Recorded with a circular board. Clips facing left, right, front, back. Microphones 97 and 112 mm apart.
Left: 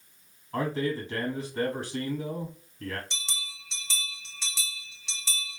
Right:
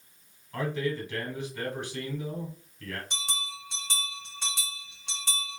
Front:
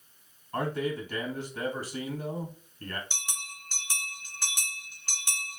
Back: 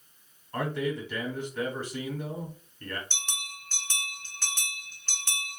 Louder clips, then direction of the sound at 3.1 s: Right 5 dB, back 1 dB; 75° right.